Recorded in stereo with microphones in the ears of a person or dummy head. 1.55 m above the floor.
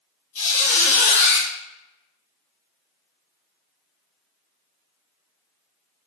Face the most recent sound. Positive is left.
turn(degrees=45)  # may be behind; listen again after turning